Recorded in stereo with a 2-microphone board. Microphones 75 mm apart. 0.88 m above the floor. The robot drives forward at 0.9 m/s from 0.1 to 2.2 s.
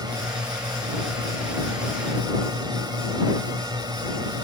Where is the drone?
65° right (ahead or behind); by 4.5 s 70° right (ahead or behind).